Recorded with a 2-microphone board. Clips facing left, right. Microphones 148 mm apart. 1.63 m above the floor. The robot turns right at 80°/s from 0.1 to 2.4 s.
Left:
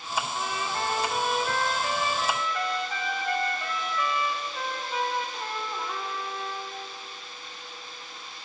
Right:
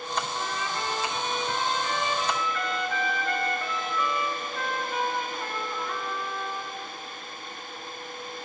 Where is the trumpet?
5° left, 4 m; by 6.8 s 170° left, 4 m.